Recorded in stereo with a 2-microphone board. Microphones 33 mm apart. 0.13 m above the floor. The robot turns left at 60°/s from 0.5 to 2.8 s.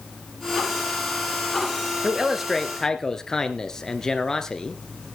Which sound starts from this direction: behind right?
A man speaking, at 2.0 s.